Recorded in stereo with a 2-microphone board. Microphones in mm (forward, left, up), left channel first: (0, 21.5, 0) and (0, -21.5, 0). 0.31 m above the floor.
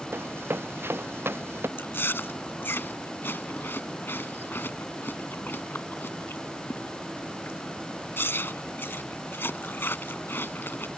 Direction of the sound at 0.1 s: 70° right (ahead or behind).